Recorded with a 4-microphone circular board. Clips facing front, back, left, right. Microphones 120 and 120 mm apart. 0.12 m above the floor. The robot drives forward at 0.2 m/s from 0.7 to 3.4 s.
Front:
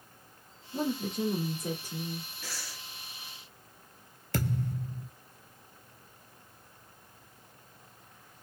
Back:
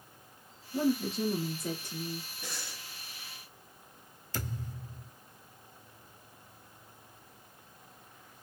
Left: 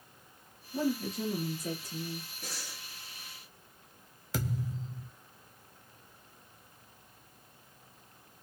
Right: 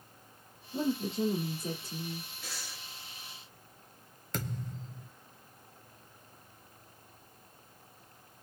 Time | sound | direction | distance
0.7 | a woman speaking | 55° right | 1.9 m
2.4 | breathing | 115° left | 1.0 m
4.3 | a thud | 5° left | 0.6 m